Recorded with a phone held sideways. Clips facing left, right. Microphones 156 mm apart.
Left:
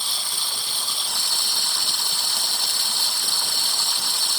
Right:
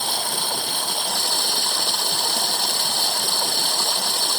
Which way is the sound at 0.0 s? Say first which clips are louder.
Right 10 dB; 60° right (ahead or behind).